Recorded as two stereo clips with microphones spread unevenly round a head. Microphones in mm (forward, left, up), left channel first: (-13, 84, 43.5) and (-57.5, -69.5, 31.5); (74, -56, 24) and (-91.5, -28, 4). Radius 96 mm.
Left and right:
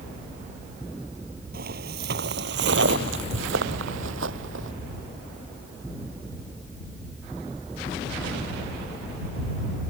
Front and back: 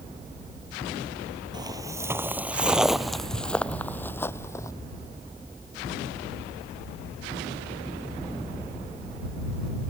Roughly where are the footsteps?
Behind right.